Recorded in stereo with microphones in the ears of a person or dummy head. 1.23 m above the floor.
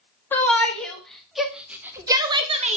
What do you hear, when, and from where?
0.3 s a shout: 15° left (ahead or behind), 2.0 m; by 2.8 s 35° right (ahead or behind), 1.1 m